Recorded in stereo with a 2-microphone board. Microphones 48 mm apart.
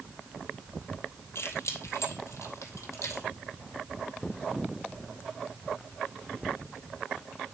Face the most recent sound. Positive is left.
turn(degrees=70)  # may be behind; listen again after turning